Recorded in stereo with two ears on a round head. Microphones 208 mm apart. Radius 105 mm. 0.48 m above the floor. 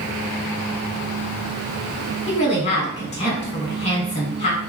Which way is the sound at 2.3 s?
30° left (ahead or behind).